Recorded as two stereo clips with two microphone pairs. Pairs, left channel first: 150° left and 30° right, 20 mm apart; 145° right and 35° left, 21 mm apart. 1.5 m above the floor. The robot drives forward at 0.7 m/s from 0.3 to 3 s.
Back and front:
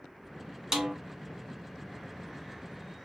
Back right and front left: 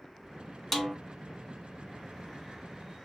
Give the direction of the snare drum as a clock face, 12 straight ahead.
2 o'clock.